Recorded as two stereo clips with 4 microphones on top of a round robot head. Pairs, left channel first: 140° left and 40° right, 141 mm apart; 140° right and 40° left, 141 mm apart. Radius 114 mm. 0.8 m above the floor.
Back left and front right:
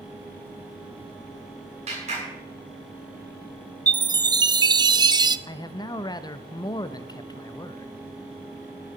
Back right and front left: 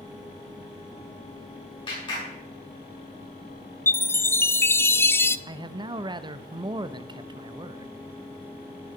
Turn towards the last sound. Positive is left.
turn(degrees=90)